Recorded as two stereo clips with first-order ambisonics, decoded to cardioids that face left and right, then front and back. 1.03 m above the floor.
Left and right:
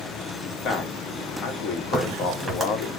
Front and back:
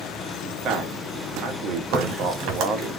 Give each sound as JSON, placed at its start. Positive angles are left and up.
{"t": 0.4, "sound": "a man speaking", "azimuth_deg": 135, "distance_m": 1.3}
{"t": 1.9, "sound": "a crack", "azimuth_deg": -175, "distance_m": 2.5}